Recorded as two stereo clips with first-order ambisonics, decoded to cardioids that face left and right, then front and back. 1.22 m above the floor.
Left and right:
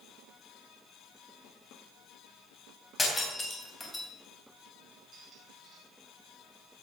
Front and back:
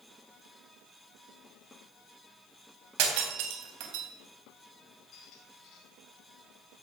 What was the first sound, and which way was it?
Breaking glass, 170° left.